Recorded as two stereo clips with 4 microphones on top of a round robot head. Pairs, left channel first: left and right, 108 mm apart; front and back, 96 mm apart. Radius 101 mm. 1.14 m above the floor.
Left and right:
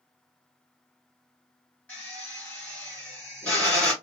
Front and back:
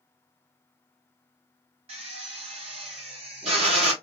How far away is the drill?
About 1.8 m.